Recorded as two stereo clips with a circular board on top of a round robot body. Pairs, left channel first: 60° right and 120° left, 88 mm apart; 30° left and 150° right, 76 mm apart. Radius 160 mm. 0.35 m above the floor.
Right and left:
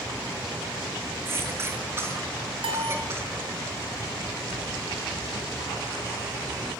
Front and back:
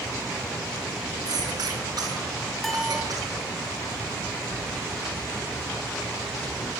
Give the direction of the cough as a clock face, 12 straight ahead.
6 o'clock.